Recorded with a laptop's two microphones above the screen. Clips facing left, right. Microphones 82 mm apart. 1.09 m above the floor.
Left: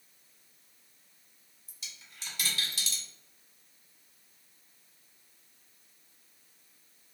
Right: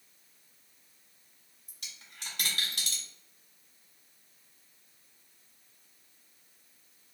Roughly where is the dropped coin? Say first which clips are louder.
Even; right.